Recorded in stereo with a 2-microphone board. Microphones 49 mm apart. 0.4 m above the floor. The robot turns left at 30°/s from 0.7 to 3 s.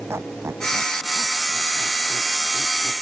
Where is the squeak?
60° right (ahead or behind); by 2.9 s 55° right (ahead or behind).